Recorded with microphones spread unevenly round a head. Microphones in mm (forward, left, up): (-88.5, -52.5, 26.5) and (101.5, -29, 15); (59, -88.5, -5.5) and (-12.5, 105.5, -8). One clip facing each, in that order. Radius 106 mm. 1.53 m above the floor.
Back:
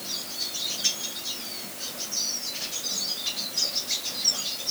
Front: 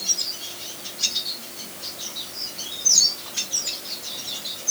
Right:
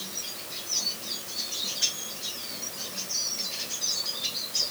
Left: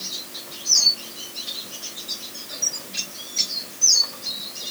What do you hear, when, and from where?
Only background noise.